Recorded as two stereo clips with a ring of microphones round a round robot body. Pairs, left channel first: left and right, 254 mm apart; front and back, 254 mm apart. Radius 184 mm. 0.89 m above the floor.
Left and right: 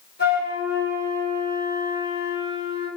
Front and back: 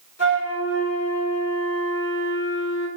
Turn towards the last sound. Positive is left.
turn(degrees=30)